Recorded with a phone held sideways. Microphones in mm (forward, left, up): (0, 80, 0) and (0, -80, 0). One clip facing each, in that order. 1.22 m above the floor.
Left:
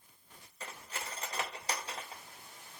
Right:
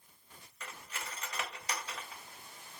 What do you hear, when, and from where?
0.6 s cutlery clinking: 30° left (ahead or behind), 0.7 m